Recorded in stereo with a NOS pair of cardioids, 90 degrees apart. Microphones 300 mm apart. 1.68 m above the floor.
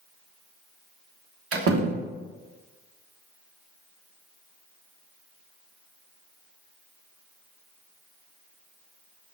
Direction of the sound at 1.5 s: 50° right.